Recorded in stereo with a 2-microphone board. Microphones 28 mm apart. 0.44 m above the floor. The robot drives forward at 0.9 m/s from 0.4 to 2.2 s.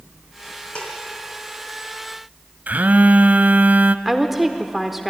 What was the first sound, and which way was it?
Dishes clattering, 35° left (ahead or behind).